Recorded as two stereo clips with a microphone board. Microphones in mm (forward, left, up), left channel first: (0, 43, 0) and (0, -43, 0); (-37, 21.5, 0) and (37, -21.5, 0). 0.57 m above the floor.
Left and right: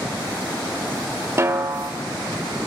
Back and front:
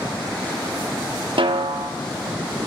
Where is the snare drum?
35° right, 0.6 m.